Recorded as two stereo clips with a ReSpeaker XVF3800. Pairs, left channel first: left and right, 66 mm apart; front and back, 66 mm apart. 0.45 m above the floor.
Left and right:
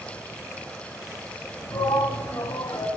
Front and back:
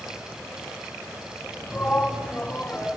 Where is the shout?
65° left, 4 m; by 2.9 s 80° left, 4 m.